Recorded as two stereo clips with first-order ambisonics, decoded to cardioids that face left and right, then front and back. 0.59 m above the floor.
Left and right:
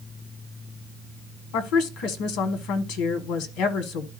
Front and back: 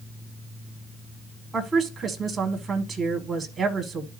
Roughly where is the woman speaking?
Left.